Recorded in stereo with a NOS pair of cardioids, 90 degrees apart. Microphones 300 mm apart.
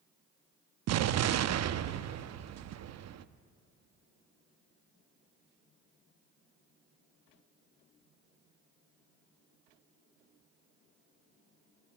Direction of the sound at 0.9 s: 60° right.